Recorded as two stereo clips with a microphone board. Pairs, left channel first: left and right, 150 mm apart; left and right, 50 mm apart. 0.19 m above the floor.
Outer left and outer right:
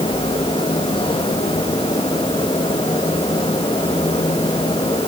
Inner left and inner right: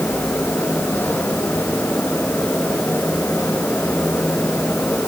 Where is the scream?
No scream in this recording.